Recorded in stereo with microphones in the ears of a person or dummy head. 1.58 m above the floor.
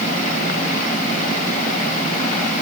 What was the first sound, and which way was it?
Only background noise.